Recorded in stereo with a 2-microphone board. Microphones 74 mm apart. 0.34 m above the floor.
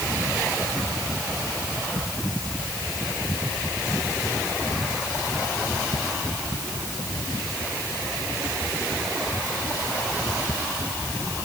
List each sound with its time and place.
Only background noise.